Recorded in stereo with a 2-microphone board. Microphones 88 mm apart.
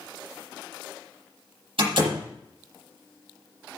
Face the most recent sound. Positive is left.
turn(degrees=-75)  # may be behind; listen again after turning